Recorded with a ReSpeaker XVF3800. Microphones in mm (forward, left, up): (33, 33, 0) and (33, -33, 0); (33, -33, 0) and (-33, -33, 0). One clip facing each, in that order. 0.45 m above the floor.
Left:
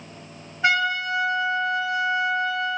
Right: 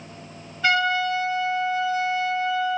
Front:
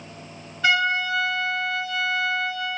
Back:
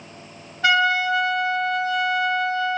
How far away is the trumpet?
About 1.6 m.